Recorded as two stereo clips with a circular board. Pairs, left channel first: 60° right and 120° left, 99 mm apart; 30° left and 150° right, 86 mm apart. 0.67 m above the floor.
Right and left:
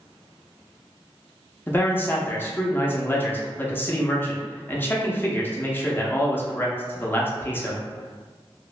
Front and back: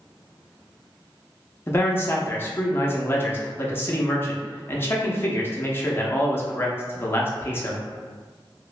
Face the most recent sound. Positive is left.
turn(degrees=-10)